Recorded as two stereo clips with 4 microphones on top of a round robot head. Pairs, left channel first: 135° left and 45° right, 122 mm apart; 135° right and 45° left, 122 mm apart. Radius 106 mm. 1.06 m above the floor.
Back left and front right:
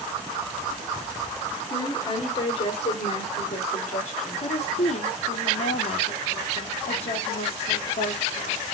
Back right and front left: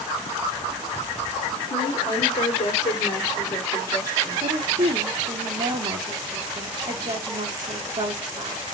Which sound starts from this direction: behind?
A woman speaking, at 1.7 s.